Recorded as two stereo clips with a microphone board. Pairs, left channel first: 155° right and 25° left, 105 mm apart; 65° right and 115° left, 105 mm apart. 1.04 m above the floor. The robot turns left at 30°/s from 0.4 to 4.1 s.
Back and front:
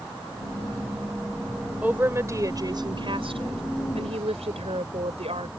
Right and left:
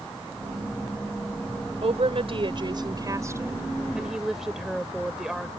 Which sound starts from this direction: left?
A woman speaking, at 1.8 s.